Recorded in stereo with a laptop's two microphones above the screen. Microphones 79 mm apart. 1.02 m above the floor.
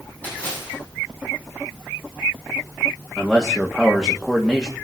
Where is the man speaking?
5° right (ahead or behind), 1.8 m.